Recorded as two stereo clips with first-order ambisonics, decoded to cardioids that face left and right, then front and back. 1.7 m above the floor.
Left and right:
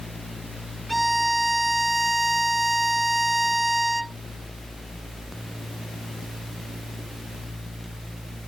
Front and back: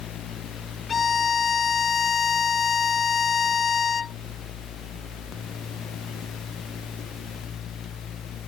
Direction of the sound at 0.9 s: 10° right.